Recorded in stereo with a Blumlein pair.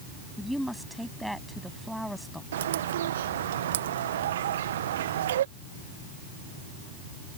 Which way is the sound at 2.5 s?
60° right.